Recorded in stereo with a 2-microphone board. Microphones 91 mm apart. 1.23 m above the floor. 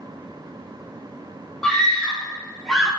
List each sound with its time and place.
1.6 s a scream: 5° left (ahead or behind), 2 m